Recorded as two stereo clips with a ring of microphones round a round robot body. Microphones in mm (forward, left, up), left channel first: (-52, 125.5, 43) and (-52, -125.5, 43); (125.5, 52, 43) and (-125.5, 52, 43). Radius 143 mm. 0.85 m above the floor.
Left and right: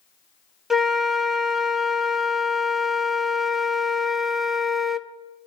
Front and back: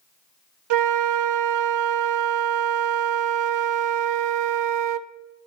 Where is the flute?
Straight behind, 0.6 m.